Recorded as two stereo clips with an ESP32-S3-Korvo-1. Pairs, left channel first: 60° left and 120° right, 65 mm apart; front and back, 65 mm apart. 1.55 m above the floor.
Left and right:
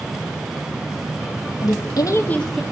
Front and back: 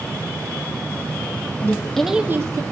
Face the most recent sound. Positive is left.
turn(degrees=155)